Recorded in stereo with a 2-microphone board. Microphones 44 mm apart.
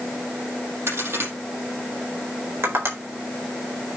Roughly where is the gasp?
I don't hear a gasp.